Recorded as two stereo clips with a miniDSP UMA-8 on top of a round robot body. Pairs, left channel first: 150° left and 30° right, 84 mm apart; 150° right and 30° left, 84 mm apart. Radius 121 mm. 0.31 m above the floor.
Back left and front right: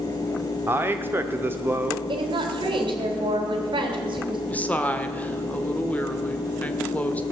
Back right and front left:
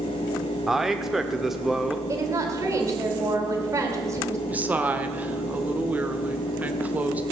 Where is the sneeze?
I don't hear a sneeze.